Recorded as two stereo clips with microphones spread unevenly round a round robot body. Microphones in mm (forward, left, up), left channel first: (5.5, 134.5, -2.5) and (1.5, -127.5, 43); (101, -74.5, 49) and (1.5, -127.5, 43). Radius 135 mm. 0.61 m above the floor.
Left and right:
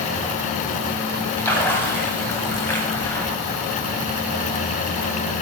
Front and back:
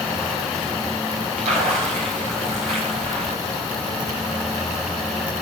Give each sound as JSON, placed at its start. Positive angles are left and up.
{"t": 1.4, "sound": "a splash", "azimuth_deg": 170, "distance_m": 4.0}